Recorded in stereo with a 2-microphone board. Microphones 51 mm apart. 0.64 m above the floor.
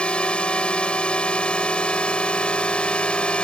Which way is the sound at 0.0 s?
20° left (ahead or behind).